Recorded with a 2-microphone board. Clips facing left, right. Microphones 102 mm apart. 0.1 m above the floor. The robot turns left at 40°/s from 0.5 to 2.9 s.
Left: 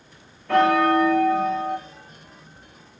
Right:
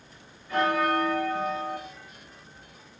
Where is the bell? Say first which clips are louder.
Left 7 dB; 110° left, 3 m; by 1.8 s 60° left, 3 m.